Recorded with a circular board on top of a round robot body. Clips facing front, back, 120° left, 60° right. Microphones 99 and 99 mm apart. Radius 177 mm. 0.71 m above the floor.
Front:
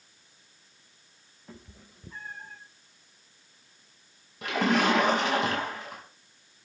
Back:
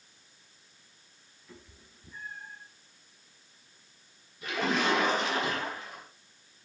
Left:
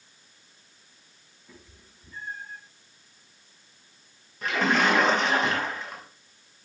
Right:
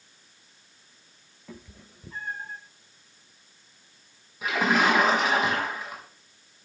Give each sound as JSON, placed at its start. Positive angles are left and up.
{"t": 1.5, "sound": "a cat meowing", "azimuth_deg": -45, "distance_m": 2.0}
{"t": 4.4, "sound": "a splash", "azimuth_deg": 25, "distance_m": 6.0}